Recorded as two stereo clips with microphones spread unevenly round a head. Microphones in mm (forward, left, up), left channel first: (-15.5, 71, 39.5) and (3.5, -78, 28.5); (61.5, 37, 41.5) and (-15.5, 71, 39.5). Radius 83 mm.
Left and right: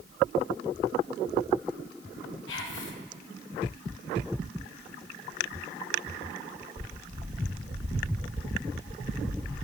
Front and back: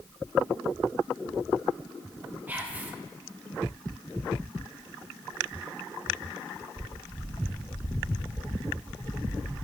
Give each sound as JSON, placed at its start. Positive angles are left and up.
{"t": 2.5, "sound": "whispering", "azimuth_deg": 85, "distance_m": 1.3}